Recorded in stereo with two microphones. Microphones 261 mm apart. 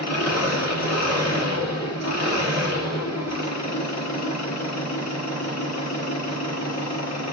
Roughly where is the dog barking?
No dog barking in this recording.